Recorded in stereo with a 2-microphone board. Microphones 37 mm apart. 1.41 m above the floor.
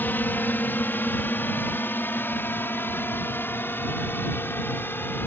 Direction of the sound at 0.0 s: 60° left (ahead or behind).